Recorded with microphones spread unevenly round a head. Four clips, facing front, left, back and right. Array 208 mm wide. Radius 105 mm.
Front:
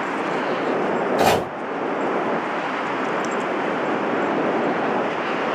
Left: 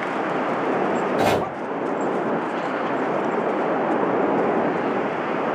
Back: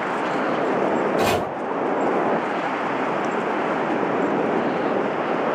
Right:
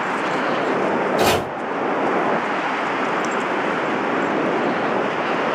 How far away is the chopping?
About 0.9 m.